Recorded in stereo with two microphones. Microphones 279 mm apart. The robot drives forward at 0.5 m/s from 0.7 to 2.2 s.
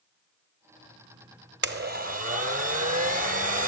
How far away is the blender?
About 0.7 m.